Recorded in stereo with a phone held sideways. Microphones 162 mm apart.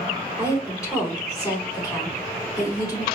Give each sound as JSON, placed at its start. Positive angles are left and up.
{"t": 0.4, "sound": "a woman speaking", "side_deg": 20, "distance_m": 2.5}